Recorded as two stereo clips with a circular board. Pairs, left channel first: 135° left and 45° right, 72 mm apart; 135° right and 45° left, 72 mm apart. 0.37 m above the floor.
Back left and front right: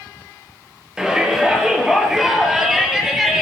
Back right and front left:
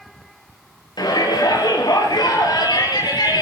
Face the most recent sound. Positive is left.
turn(degrees=-130)